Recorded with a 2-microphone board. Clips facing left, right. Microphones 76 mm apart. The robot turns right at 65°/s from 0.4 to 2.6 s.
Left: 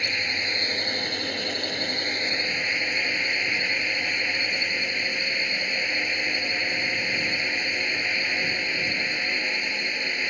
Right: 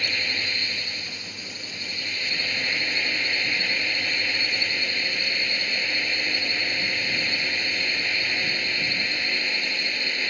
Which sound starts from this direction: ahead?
A drone, at 0.0 s.